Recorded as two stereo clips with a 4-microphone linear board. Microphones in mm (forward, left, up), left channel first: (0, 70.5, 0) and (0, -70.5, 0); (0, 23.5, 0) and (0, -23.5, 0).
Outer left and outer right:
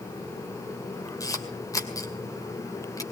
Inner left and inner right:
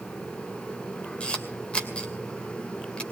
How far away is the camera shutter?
About 2.5 m.